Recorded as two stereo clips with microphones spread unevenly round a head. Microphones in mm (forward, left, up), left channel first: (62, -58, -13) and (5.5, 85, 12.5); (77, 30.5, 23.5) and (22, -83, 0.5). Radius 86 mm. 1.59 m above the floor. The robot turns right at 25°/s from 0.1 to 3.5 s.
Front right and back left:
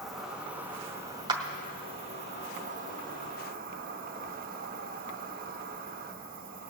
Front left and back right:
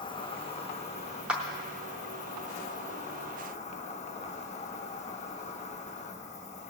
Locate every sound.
0.0 s an insect: 10° left, 0.7 m; by 6.7 s 95° left, 0.7 m
1.3 s a clap: 150° left, 0.7 m; by 1.4 s 155° left, 0.7 m